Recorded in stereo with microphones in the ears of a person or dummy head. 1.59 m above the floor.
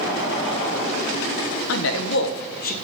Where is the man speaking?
80° left, 1.5 m; by 2.7 s 45° left (ahead or behind), 1.5 m.